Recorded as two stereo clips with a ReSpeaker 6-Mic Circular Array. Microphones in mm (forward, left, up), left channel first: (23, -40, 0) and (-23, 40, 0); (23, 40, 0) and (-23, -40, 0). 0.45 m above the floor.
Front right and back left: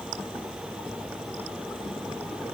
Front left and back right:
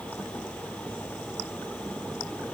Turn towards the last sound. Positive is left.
No sound to turn to.